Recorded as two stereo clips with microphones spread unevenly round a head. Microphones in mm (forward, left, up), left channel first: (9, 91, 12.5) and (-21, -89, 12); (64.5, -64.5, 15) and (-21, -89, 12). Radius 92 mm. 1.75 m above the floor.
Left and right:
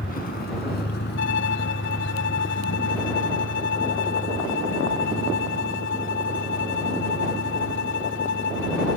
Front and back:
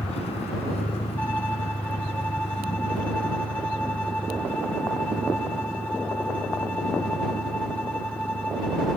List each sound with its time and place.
0.0 s a vehicle: 35° left; by 9.0 s 65° left
1.2 s a violin: 95° left